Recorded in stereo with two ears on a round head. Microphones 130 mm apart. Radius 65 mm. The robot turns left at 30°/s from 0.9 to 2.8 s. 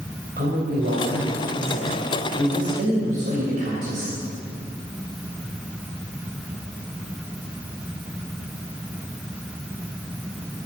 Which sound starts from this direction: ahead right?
A man speaking, at 0.4 s.